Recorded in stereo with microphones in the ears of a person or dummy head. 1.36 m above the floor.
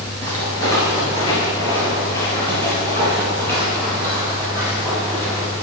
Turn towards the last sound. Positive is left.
turn(degrees=5)  # may be behind; listen again after turning